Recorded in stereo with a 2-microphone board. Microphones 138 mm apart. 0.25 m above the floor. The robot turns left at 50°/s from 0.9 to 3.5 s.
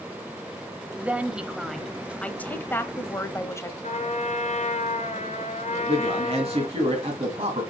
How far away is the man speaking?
About 2.5 m.